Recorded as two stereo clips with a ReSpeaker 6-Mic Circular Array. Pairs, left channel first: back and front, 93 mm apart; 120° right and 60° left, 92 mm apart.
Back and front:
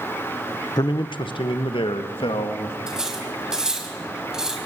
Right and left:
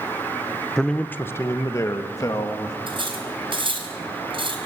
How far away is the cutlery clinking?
About 4.5 m.